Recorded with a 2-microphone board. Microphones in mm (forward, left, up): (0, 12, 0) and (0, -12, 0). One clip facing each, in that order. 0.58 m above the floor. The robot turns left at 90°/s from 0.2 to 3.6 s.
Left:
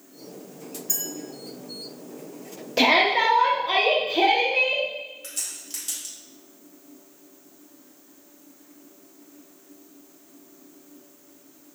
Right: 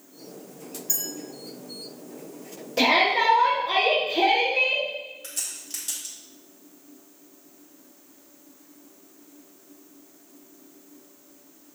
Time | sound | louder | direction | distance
0.9 | a clink | even | 10° right (ahead or behind) | 1.4 m
2.8 | a shout | left 1 dB | 120° left | 0.7 m
5.2 | a crack | even | 5° left (ahead or behind) | 1.5 m